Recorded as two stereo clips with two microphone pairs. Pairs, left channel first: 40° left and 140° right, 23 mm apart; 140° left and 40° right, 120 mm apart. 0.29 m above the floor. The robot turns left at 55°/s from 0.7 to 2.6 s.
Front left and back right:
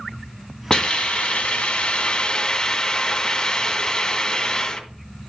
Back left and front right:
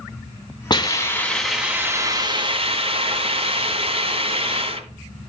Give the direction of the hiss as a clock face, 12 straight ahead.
9 o'clock.